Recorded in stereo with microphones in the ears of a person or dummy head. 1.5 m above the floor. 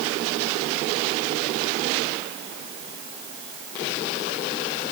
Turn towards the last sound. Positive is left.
No sound to turn to.